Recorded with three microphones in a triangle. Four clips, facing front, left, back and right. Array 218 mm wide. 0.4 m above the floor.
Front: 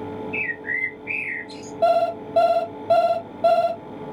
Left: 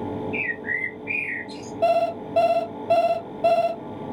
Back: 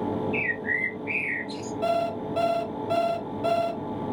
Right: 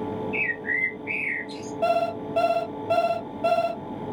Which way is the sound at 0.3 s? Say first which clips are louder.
Even, back 1 dB; 110° left.